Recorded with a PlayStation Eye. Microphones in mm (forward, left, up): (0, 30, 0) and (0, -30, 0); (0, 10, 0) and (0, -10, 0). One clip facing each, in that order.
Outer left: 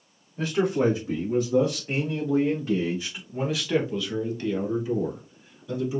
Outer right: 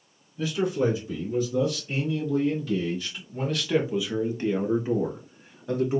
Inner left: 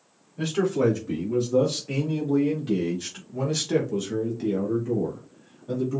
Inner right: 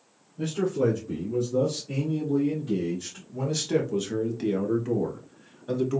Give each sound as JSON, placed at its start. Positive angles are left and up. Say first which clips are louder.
{"t": 0.4, "sound": "a man speaking", "louder": "outer left 2 dB, inner left 2 dB", "side_deg": 65, "distance_m": 2.0}